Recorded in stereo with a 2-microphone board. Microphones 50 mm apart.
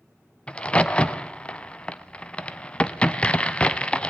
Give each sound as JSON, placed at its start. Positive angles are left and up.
{"t": 0.5, "sound": "a crack", "side_deg": 20, "distance_m": 0.6}